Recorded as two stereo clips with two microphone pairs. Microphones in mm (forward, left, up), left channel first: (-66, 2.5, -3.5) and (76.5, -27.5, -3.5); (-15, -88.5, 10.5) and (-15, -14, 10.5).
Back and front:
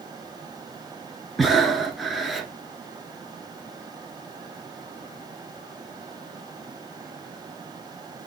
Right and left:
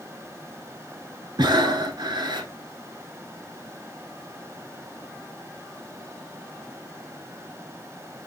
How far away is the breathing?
About 0.7 m.